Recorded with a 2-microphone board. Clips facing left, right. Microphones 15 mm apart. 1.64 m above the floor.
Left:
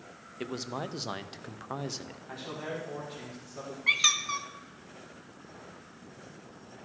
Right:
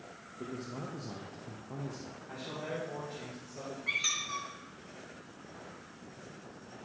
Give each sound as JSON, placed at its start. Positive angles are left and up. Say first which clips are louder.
{"t": 0.4, "sound": "a man speaking", "louder": "left 5 dB", "side_deg": 65, "distance_m": 0.6}
{"t": 2.3, "sound": "a man speaking", "louder": "left 2 dB", "side_deg": 30, "distance_m": 2.0}
{"t": 3.9, "sound": "a squeak", "louder": "left 7 dB", "side_deg": 40, "distance_m": 0.7}